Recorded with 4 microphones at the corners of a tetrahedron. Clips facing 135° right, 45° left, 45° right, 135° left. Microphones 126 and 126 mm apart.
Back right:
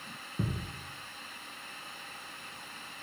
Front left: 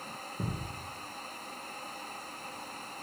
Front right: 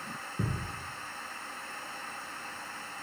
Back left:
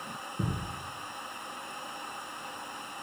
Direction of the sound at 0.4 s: 120° right.